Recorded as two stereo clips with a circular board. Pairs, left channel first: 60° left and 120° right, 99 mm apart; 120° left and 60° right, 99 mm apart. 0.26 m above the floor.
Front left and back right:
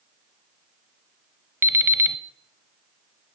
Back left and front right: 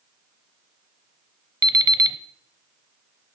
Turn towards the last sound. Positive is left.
turn(degrees=-70)